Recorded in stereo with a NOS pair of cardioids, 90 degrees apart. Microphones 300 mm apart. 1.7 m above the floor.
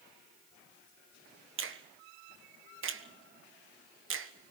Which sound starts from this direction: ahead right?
A finger snap, at 1.6 s.